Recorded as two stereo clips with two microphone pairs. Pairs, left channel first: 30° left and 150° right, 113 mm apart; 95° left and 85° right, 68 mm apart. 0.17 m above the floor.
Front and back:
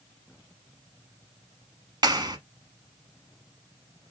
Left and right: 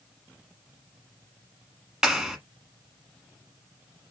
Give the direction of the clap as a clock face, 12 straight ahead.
5 o'clock.